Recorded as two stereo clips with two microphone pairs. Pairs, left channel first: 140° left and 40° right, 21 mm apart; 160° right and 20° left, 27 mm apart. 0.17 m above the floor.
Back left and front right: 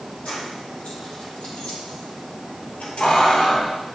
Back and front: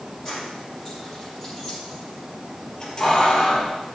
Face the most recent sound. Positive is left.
turn(degrees=145)